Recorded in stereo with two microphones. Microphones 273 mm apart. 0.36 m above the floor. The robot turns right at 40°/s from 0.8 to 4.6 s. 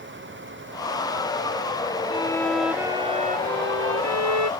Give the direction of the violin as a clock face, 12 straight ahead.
7 o'clock.